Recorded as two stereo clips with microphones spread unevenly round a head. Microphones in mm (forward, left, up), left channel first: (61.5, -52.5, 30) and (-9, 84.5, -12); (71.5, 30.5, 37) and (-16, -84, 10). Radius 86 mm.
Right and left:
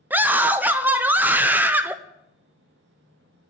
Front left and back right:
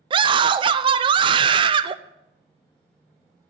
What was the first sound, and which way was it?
A scream, 175° right.